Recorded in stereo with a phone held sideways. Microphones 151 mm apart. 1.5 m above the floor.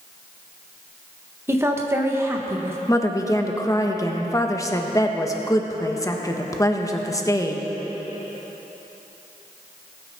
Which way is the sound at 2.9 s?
20° left (ahead or behind).